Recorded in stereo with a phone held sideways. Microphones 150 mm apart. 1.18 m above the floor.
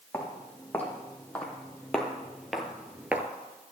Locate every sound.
0.1 s footsteps: 10° left (ahead or behind), 3.5 m; by 3.3 s 15° right (ahead or behind), 1.1 m